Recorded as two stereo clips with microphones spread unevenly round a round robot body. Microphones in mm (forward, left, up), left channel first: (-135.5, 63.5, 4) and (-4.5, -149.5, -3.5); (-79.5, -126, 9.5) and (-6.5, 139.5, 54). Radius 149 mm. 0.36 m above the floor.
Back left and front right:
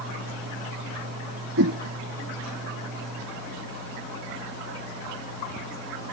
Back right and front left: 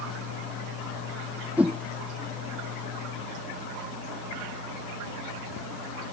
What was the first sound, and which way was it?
A whoosh, 10° right.